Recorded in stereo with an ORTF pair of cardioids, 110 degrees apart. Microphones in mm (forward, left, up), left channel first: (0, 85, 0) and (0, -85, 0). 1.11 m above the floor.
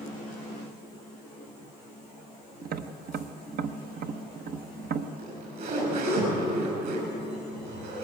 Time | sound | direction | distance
2.6 | tapping | 60° right | 1.2 m
5.2 | a zipper | 65° right | 8.5 m